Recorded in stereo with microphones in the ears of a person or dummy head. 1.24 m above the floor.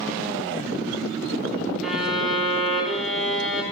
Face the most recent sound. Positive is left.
turn(degrees=0)  # may be behind; listen again after turning